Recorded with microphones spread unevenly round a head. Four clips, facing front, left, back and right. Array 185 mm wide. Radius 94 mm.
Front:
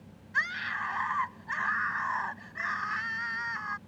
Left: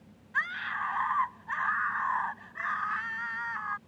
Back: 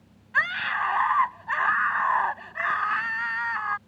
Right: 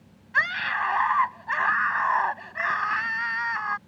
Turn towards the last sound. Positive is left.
turn(degrees=-125)